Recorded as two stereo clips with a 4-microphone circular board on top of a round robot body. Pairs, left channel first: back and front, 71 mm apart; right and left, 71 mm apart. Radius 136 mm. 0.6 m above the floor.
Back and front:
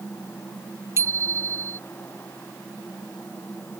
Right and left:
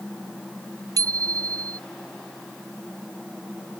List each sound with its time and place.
1.0 s a bicycle bell: 50° left